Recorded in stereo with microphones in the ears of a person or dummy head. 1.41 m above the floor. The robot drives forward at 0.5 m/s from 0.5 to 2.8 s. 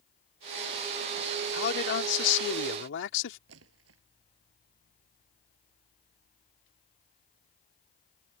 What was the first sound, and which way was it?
A man speaking, 60° left (ahead or behind).